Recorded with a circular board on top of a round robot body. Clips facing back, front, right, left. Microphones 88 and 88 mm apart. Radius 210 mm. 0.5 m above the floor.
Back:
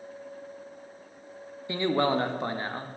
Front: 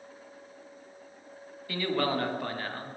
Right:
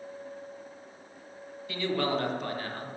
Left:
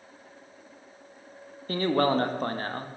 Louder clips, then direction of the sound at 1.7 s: Back 4 dB, left 5 dB; 120° left.